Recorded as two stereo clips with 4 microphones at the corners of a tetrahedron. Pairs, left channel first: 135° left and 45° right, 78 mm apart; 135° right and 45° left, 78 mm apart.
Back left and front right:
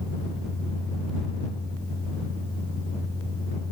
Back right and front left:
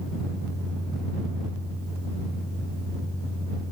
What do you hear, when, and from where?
Only background noise.